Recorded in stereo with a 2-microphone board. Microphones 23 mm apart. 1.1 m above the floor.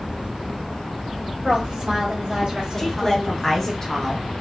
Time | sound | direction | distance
1.4 | a woman speaking | 55° right (ahead or behind) | 1.2 m
2.8 | a woman speaking | 20° left (ahead or behind) | 1.1 m